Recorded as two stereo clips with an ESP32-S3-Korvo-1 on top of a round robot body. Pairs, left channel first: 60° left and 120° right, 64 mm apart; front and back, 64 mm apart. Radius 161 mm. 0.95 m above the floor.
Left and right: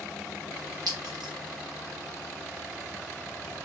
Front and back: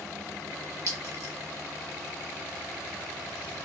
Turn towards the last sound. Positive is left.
turn(degrees=-140)